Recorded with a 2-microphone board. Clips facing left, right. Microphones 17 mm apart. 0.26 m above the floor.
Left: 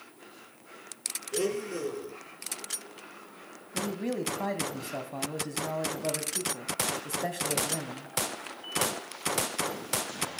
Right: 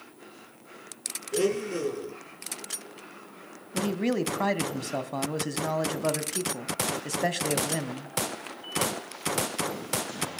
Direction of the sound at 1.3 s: 15° right (ahead or behind).